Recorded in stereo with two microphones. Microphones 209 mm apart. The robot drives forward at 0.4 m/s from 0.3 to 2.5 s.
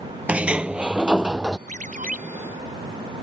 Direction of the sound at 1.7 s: 40° right (ahead or behind).